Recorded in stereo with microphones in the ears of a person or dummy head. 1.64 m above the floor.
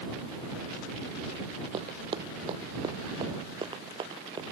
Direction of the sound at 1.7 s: 30° right (ahead or behind).